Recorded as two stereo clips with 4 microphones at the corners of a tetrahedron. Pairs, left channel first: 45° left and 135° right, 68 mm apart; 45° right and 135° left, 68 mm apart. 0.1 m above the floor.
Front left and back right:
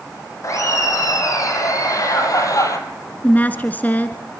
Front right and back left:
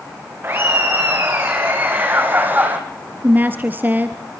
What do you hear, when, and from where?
0.4 s laughter: 80° left, 7.5 m; by 2.8 s 75° left, 4.5 m
3.2 s a woman speaking: 90° left, 1.3 m